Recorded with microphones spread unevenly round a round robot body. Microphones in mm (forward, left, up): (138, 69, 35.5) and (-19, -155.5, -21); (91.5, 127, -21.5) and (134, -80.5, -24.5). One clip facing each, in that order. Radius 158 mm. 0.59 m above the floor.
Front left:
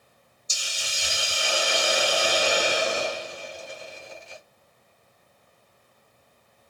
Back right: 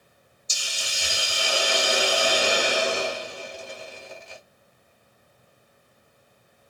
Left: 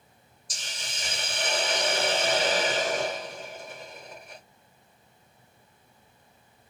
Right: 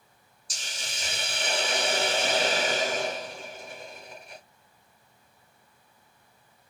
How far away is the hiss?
About 1.1 m.